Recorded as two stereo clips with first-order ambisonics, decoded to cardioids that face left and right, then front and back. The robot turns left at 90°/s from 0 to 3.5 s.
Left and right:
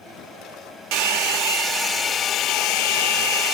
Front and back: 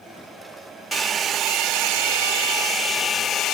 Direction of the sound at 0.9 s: 90° right.